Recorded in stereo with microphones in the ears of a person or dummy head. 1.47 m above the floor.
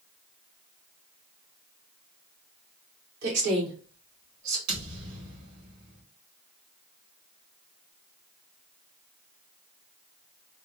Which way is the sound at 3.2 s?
80° right.